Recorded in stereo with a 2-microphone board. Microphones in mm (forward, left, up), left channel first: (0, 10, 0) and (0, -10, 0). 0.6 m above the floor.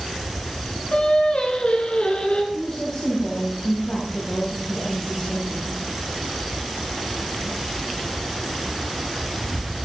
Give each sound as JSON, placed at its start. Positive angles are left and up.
{"t": 0.9, "sound": "singing", "side_deg": 70, "distance_m": 2.5}
{"t": 2.5, "sound": "a woman speaking", "side_deg": 55, "distance_m": 3.5}